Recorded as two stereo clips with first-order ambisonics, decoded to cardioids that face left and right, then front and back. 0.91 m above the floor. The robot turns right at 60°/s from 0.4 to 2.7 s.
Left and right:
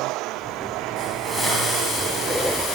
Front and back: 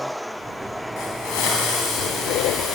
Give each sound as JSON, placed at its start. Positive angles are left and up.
{"t": 1.0, "sound": "a hiss", "azimuth_deg": -25, "distance_m": 3.5}